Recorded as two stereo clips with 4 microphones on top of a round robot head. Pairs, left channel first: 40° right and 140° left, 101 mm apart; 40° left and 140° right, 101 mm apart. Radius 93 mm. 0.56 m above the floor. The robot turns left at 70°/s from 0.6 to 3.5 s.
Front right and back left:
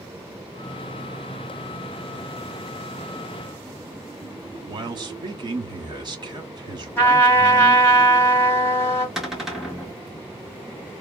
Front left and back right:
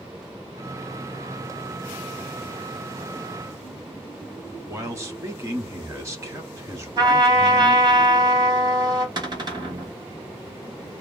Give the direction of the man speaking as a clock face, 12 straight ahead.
6 o'clock.